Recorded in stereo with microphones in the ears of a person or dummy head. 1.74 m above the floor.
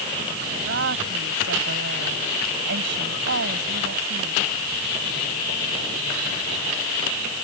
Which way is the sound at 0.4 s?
65° right (ahead or behind).